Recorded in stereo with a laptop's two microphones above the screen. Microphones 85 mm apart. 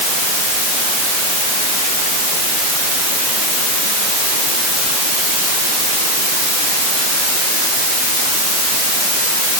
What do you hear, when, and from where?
Only background noise.